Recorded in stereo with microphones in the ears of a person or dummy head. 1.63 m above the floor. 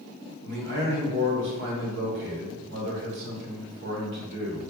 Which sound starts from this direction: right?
A man speaking, at 0.4 s.